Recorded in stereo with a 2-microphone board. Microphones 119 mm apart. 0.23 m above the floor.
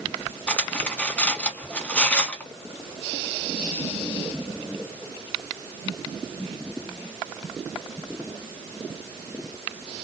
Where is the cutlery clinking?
10° left (ahead or behind), 1.1 m.